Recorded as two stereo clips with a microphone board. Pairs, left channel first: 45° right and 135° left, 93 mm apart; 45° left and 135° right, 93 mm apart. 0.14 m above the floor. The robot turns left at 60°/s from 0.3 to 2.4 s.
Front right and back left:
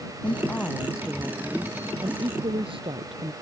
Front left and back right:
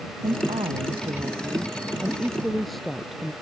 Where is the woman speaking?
100° right; by 3.3 s 135° left.